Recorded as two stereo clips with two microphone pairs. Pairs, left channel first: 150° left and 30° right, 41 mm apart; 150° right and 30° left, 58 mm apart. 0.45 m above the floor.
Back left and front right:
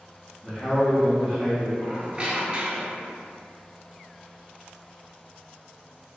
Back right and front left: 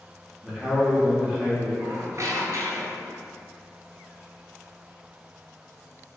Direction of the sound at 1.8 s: 30° left.